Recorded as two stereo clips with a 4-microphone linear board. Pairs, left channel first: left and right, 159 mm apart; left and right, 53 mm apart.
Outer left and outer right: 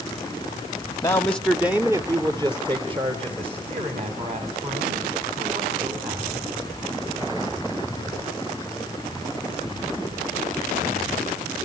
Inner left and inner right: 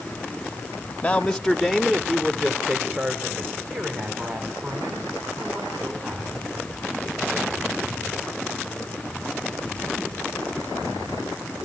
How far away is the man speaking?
About 1.1 m.